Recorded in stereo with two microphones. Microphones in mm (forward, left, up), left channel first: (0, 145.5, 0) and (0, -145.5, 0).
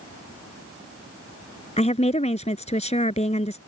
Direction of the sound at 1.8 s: 20° left (ahead or behind).